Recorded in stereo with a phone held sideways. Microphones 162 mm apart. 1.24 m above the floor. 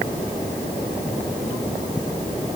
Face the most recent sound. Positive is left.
No sound to turn to.